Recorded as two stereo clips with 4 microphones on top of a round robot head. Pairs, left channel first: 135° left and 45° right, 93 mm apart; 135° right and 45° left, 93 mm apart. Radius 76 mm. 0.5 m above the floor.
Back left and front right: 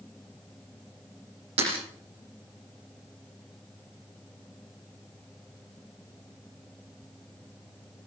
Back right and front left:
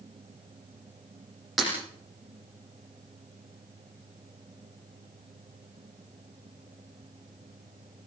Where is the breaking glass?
45° right, 9 m.